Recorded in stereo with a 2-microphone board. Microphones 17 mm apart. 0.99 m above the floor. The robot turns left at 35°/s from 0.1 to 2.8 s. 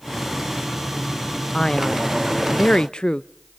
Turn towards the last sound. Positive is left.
turn(degrees=90)